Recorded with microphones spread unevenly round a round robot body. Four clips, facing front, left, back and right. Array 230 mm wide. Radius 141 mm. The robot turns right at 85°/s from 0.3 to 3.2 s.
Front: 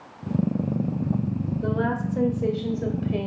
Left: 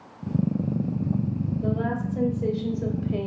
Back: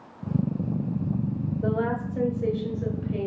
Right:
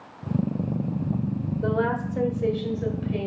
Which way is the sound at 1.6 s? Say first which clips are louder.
Right 4 dB, even; 65° right.